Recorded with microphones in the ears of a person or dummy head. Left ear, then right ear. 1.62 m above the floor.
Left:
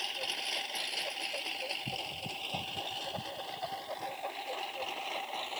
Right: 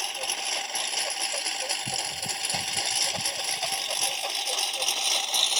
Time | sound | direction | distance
0.0 | a lawn mower | 40° right (ahead or behind) | ?